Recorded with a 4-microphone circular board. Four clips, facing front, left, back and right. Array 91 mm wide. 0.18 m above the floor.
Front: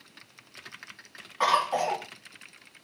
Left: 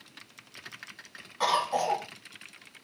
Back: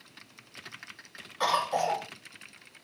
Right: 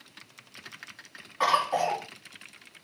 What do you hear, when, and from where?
1.4 s a cough: 30° right, 1.7 m